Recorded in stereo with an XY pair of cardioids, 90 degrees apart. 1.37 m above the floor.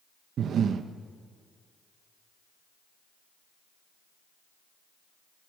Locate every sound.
0.4 s breathing: 65° right, 1.3 m